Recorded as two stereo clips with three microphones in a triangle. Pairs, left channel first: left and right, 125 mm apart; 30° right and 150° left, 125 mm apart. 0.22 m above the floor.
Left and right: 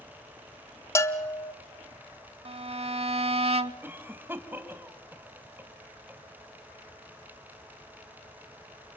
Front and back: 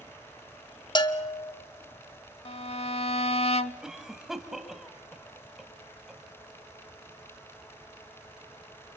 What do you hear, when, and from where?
0.9 s a bell: 20° left, 0.7 m
2.5 s a violin: 60° right, 0.6 m
3.8 s a cough: 130° right, 1.7 m